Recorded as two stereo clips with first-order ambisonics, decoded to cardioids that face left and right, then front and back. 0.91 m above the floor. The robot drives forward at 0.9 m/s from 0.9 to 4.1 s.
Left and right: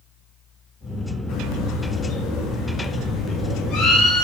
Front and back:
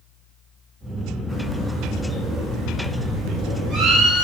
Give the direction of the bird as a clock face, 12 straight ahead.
9 o'clock.